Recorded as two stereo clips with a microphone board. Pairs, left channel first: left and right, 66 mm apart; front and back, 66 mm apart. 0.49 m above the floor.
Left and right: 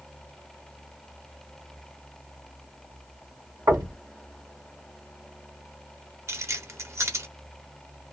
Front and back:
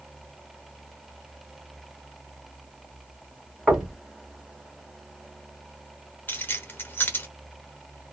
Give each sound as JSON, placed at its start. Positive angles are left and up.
{"t": 3.7, "sound": "knocking", "azimuth_deg": -95, "distance_m": 2.5}
{"t": 6.3, "sound": "keys jangling", "azimuth_deg": -55, "distance_m": 0.9}